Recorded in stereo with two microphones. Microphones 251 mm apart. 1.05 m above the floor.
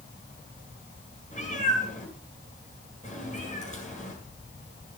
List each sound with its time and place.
1.3 s a cat meowing: 30° left (ahead or behind), 8.5 m